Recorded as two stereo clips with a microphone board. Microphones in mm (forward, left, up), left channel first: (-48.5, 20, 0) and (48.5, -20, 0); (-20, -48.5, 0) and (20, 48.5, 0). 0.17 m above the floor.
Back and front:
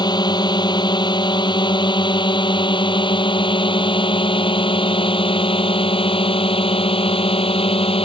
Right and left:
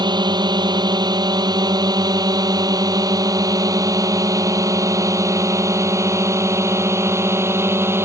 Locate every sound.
0.0 s a drone: 115° left; by 8.1 s 135° left